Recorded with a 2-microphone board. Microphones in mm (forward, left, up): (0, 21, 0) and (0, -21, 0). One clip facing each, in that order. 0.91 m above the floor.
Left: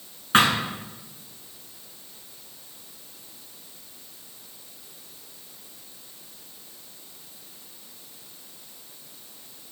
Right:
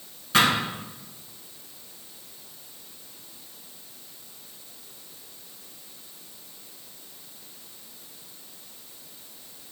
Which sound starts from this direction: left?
A thud, at 0.3 s.